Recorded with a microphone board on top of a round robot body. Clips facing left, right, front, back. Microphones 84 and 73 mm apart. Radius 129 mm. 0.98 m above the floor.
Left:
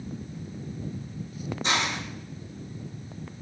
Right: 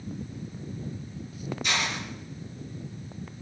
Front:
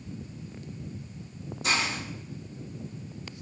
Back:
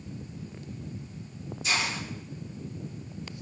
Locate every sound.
1.6 s a hiss: 35° left, 6 m